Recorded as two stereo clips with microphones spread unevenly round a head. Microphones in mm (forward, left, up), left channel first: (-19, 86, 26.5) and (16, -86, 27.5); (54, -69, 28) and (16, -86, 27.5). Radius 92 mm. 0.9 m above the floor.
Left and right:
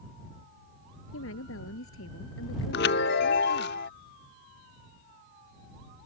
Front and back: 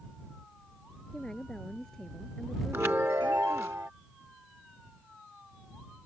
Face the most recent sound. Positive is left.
turn(degrees=130)